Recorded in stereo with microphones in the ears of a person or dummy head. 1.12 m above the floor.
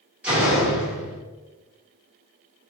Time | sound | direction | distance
0.2 | a door slam | 10° right (ahead or behind) | 1.4 m